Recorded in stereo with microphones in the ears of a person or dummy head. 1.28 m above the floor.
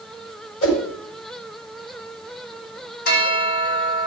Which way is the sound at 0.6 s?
75° left (ahead or behind).